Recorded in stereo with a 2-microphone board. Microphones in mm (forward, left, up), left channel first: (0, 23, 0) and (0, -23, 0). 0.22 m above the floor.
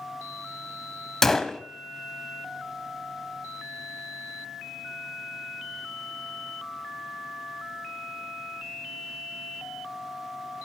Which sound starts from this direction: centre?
A gunshot, at 1.2 s.